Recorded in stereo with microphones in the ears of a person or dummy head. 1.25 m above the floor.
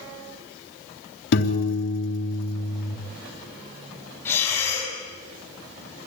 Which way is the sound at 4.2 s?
10° left (ahead or behind).